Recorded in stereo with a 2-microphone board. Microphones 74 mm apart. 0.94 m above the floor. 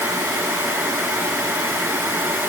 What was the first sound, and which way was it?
Only background noise.